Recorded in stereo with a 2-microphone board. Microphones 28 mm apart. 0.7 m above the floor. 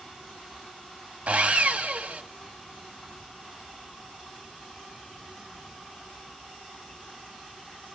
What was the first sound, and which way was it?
Sawing, 60° right (ahead or behind).